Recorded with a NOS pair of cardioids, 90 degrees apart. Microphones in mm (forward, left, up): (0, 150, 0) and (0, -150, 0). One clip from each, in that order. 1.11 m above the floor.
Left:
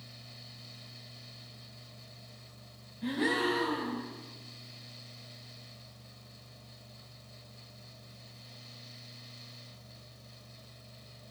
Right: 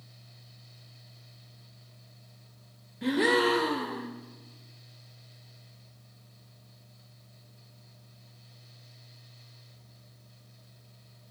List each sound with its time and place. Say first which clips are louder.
0.0 s a fan: left 7 dB; 50° left, 1.9 m
3.0 s a gasp: right 6 dB; 70° right, 3.5 m